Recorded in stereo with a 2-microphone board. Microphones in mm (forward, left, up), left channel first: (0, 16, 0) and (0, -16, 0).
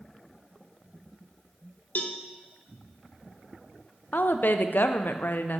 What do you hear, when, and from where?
1.9 s a cowbell: 55° left (ahead or behind), 0.6 m
4.1 s a woman speaking: 70° left (ahead or behind), 0.5 m